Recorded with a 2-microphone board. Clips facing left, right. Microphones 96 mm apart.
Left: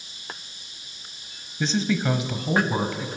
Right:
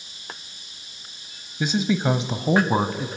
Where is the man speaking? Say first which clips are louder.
Right 2 dB; 10° right (ahead or behind), 1.0 m; by 3.1 s 35° right (ahead or behind), 1.6 m.